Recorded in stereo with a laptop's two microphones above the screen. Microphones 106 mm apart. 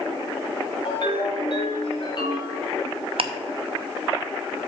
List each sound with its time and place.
0.8 s a ringtone: 50° left (ahead or behind), 2.5 m
3.2 s ticking: 60° right (ahead or behind), 0.5 m